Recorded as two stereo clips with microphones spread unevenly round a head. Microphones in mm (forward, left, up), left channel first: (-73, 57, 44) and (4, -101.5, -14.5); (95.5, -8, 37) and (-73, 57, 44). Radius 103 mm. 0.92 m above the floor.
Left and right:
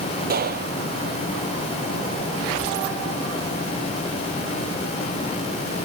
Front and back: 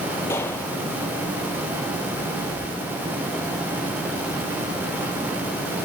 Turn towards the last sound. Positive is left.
turn(degrees=-100)